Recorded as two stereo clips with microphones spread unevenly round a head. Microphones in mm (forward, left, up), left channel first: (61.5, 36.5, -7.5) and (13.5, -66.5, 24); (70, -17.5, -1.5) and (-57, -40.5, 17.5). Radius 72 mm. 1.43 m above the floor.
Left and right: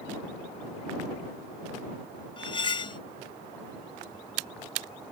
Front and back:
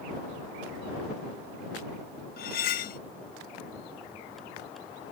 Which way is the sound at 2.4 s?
15° left.